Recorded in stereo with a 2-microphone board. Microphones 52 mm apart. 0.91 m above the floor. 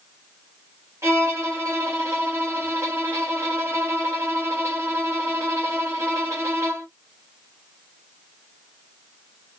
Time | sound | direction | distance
1.0 | a violin | 70° right (ahead or behind) | 1.5 m